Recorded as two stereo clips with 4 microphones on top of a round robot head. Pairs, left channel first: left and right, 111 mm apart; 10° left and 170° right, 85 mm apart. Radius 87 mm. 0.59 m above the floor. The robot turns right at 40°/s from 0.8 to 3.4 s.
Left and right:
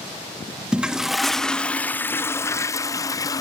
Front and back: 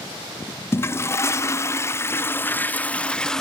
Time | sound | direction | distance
0.7 | a toilet flushing | 15° right | 0.6 m